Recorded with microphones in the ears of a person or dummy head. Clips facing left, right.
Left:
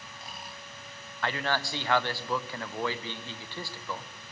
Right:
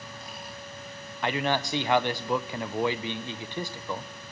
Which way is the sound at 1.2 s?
15° right (ahead or behind).